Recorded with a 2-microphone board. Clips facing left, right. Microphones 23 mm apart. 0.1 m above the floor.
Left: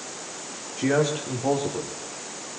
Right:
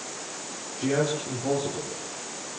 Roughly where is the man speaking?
Left.